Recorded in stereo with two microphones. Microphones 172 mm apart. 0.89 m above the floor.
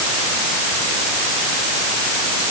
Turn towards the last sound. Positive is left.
No sound to turn to.